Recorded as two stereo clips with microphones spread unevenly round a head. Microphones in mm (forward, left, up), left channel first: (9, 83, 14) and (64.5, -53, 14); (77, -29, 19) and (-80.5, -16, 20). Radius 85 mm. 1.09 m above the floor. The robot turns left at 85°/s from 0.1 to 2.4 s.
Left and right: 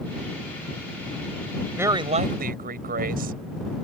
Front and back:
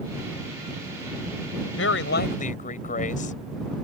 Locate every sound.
1.8 s a woman speaking: 10° left; by 3.4 s 45° right